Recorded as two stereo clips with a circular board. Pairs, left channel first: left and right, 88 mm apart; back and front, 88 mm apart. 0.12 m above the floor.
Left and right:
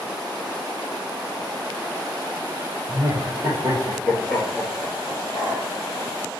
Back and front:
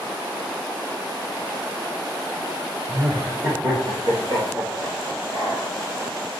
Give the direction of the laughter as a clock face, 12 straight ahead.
1 o'clock.